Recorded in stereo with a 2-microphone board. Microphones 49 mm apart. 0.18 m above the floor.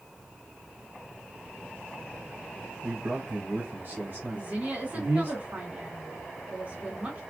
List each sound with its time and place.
2.8 s a man speaking: 50° right (ahead or behind), 1.5 m
4.3 s a woman speaking: 35° right (ahead or behind), 1.4 m